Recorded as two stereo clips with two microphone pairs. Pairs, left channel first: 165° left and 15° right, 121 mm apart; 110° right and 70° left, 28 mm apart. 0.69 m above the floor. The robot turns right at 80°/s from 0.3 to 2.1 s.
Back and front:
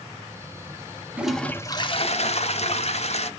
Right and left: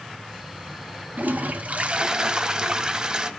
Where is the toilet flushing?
60° left, 1.1 m; by 3.3 s 135° left, 1.1 m.